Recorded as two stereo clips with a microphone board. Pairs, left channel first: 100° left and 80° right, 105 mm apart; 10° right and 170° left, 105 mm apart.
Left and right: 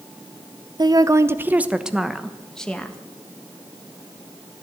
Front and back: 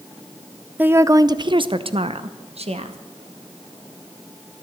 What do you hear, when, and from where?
0.8 s a woman speaking: 115° right, 0.6 m; by 3.0 s straight behind, 1.3 m